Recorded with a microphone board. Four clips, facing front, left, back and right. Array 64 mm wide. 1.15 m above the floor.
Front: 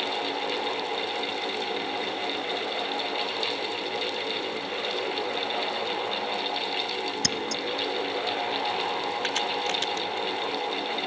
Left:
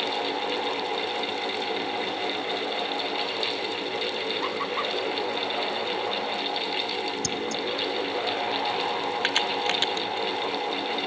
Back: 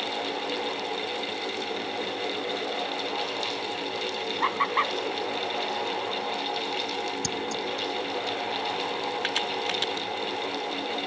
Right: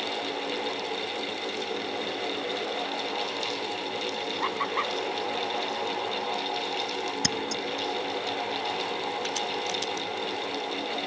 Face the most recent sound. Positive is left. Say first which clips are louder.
# left 4 dB, front 1 dB
turn(degrees=95)